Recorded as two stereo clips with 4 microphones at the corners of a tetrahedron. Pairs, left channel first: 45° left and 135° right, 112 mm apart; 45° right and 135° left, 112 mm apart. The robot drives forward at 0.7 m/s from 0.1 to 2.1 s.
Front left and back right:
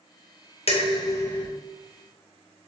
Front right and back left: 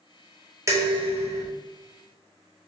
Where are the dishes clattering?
70° left, 0.6 m; by 1.5 s 125° left, 0.7 m.